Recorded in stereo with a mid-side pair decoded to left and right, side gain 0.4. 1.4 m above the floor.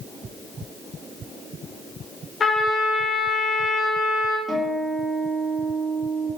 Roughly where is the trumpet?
Ahead left.